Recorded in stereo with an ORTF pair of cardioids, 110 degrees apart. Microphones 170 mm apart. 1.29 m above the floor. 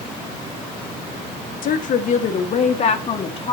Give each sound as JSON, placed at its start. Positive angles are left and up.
{"t": 1.6, "sound": "a woman speaking", "azimuth_deg": 55, "distance_m": 1.4}